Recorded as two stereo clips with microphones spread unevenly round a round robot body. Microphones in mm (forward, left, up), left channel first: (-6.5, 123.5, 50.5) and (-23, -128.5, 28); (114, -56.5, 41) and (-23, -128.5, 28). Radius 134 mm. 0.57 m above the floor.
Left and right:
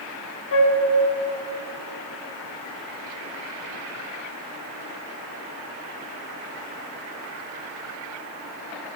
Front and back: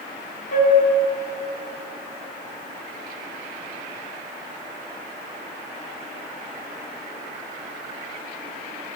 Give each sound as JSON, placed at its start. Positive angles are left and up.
{"t": 0.5, "sound": "a flute", "azimuth_deg": 65, "distance_m": 1.4}